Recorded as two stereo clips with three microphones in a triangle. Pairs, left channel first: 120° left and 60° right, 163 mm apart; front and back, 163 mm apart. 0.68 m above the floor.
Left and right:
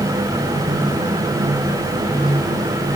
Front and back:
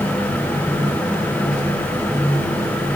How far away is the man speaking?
No man speaking in this recording.